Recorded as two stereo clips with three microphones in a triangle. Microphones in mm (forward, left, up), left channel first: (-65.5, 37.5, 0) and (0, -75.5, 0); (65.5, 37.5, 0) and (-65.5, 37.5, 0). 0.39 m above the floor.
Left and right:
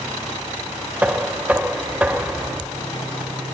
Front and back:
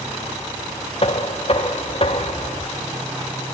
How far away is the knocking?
About 0.7 m.